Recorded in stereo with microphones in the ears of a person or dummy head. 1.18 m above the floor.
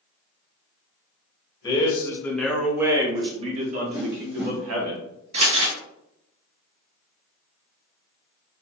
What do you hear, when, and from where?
1.6 s a man speaking: 20° left (ahead or behind), 1.2 m; by 4.9 s 65° right (ahead or behind), 1.3 m
3.9 s a whoosh: 10° right (ahead or behind), 0.7 m
5.3 s crumpling: 40° right (ahead or behind), 1.7 m